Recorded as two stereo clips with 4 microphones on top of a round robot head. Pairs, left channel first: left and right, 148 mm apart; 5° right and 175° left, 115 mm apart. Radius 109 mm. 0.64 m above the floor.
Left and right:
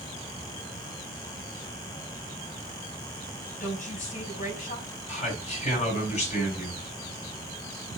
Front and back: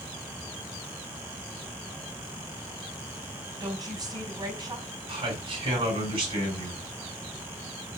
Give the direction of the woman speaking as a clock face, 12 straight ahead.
8 o'clock.